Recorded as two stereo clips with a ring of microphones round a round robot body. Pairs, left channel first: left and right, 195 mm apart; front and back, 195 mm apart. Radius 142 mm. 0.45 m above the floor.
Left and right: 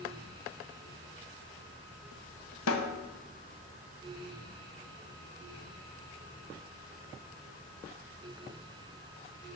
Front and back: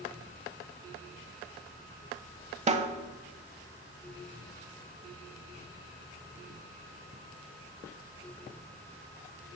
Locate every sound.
2.7 s a snare drum: 120° left, 0.9 m